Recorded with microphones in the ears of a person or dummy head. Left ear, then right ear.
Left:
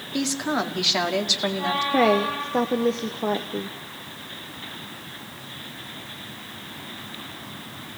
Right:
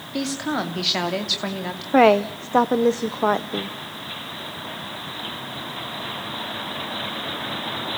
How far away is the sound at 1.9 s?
About 0.8 m.